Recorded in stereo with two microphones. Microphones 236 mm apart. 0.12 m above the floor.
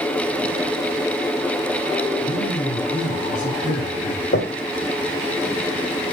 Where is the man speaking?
35° left (ahead or behind), 8 m.